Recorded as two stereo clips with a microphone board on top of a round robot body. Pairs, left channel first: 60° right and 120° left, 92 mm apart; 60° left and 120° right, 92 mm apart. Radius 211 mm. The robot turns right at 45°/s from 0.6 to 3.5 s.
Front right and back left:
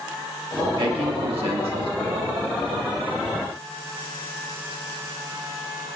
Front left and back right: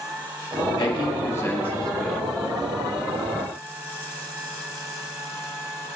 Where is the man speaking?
90° left, 1.7 m; by 2.3 s 160° left, 1.7 m.